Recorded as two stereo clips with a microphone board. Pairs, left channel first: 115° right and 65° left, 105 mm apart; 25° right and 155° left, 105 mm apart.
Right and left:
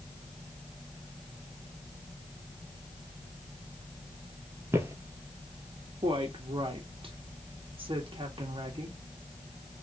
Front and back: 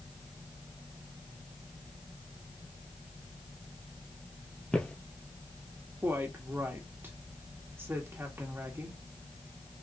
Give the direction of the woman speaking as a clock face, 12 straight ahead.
9 o'clock.